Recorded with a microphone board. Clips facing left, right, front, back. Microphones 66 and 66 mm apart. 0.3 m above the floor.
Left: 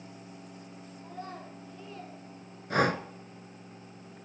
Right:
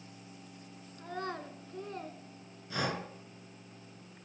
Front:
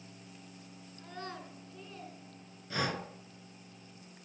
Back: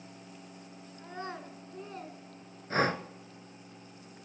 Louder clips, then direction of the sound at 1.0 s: Right 4 dB, back 3 dB; 105° right.